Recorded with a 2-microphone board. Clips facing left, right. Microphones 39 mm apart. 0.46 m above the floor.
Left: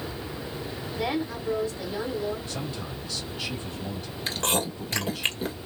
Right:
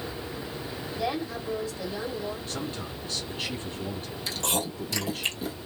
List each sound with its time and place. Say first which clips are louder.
1.0 s a woman speaking: left 2 dB; 30° left (ahead or behind), 2 m
2.5 s a man speaking: even; 40° right (ahead or behind), 1.7 m
4.3 s chewing: left 3 dB; 40° left (ahead or behind), 1.4 m